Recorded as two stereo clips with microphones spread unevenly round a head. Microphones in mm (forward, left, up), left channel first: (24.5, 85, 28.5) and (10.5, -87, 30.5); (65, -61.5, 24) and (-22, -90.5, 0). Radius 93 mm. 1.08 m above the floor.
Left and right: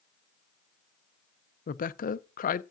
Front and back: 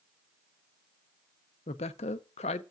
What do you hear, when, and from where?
1.7 s a woman speaking: 45° left, 0.5 m